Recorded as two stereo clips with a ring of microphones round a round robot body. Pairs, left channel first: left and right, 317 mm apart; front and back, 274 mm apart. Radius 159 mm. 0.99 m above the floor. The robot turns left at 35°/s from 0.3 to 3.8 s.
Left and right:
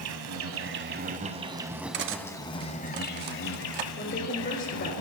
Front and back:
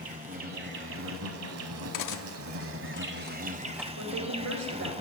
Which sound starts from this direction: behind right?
An insect, at 0.0 s.